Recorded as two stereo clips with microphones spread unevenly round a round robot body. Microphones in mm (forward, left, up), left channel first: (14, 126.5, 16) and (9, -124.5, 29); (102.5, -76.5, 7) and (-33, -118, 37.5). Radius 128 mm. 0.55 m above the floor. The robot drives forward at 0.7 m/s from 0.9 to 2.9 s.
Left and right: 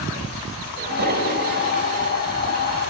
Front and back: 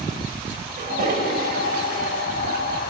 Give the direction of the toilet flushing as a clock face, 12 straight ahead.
5 o'clock.